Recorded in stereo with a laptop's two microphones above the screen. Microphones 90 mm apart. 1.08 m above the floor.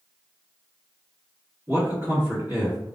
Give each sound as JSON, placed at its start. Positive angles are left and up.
{"t": 1.7, "sound": "a man speaking", "side_deg": -30, "distance_m": 1.3}